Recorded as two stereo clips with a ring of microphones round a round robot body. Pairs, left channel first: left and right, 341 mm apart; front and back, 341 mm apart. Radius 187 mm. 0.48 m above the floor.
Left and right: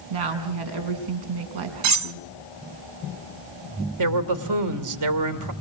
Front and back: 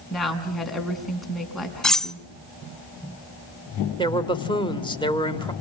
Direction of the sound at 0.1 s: 90° right.